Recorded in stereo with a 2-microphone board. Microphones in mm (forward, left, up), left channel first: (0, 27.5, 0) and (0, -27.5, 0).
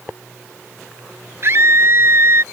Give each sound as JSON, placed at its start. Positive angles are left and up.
{"t": 1.4, "sound": "a scream", "side_deg": -45}